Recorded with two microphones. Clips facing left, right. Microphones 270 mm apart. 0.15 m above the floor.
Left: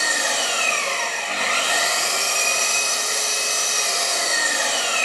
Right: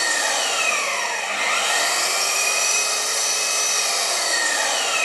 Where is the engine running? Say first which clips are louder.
Even; 40° left (ahead or behind), 6 m.